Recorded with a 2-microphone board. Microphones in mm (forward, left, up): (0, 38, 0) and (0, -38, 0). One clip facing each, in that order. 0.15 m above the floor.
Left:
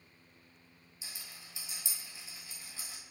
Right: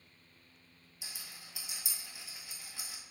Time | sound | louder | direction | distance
1.0 | a rattle | even | 65° right (ahead or behind) | 1.1 m